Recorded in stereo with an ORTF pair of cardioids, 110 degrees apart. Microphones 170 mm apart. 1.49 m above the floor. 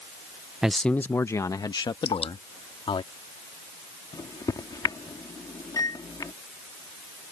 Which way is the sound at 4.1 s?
20° left.